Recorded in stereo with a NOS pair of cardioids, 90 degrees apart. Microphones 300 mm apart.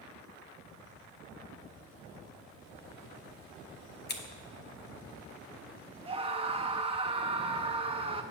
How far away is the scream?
About 1.2 m.